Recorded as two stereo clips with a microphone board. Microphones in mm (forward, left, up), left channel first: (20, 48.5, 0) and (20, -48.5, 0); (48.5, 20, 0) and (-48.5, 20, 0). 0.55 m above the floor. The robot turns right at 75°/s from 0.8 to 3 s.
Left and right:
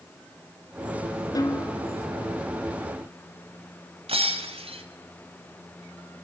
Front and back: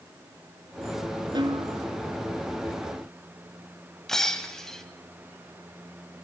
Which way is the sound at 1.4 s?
140° left.